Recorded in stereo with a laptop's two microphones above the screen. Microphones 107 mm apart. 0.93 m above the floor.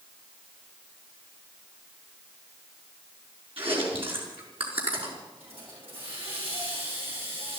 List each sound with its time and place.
3.6 s chewing: 60° right (ahead or behind), 5 m
5.4 s a hiss: 70° right (ahead or behind), 8.5 m